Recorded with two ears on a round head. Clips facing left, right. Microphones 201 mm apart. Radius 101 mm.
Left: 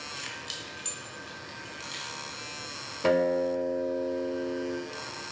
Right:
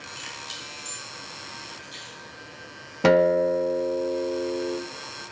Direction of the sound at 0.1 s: 5° right (ahead or behind).